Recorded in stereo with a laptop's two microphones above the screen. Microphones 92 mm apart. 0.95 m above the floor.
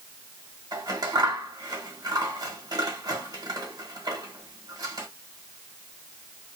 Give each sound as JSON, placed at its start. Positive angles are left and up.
{"t": 0.7, "sound": "scissors", "side_deg": -45, "distance_m": 1.0}